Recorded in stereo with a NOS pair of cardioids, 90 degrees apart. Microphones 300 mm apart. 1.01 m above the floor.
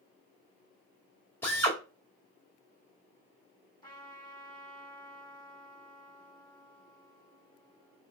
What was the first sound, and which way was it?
A drill, 5° left.